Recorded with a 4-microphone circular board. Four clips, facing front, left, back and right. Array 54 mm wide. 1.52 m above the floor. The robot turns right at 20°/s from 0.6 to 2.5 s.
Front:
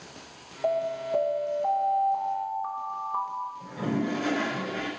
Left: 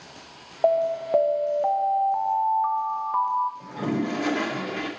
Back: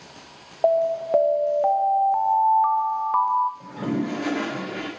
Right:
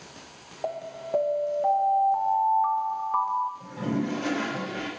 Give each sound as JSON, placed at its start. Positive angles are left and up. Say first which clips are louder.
{"t": 0.6, "sound": "an alarm", "louder": "left 12 dB, back 7 dB", "azimuth_deg": 140, "distance_m": 0.5}
{"t": 3.6, "sound": "a toilet flushing", "louder": "left 2 dB, back 3 dB", "azimuth_deg": 125, "distance_m": 1.9}